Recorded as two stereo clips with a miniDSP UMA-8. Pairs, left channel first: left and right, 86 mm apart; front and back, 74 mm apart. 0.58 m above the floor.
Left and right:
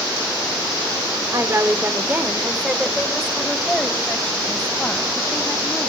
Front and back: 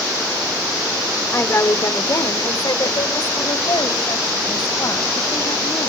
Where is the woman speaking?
50° right, 1.7 m; by 5.9 s 10° left, 4.5 m.